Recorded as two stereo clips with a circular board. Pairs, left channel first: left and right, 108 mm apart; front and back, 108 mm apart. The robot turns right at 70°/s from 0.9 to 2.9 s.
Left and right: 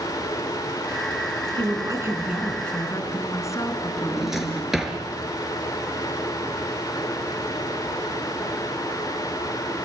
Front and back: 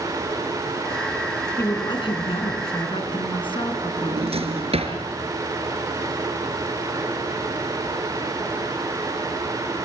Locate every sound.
1.6 s a woman speaking: 60° right, 3.5 m; by 4.9 s 30° left, 3.5 m
4.0 s a drawer: straight behind, 3 m